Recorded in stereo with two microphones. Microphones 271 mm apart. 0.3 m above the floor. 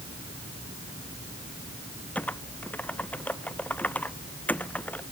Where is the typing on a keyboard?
5° left (ahead or behind).